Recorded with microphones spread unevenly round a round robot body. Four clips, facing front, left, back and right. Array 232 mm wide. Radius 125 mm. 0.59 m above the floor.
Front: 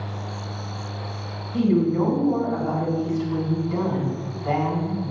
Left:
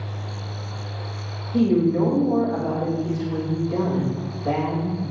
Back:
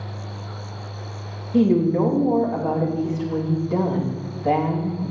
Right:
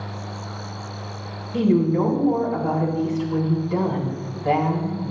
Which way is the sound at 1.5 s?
Straight behind.